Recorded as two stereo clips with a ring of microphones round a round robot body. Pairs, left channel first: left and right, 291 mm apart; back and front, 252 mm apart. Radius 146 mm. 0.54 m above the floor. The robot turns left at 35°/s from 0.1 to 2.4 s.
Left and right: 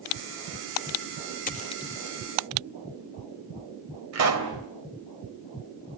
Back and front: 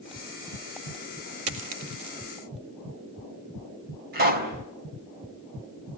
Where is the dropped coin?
25° left, 2.5 m; by 2.2 s straight ahead, 2.5 m.